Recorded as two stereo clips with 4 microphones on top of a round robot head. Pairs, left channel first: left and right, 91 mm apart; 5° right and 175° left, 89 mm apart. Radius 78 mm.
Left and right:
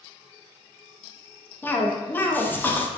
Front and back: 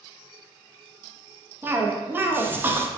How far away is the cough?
About 0.6 m.